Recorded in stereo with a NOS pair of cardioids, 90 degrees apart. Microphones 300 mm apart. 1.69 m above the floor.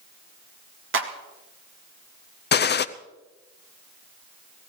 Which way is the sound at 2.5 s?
35° left.